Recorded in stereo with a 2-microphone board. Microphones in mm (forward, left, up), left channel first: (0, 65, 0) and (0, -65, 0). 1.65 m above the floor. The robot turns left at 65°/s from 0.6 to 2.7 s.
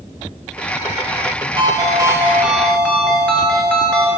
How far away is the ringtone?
About 1.3 m.